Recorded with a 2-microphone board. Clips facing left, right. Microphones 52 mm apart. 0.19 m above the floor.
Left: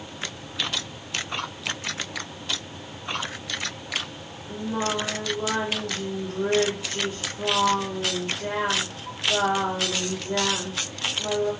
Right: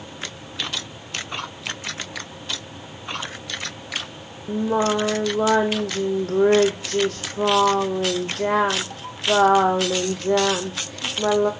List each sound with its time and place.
4.5 s singing: 85° right, 1.5 m